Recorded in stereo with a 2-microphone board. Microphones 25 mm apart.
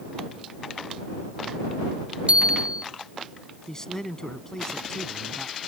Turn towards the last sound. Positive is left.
turn(degrees=20)  # may be behind; listen again after turning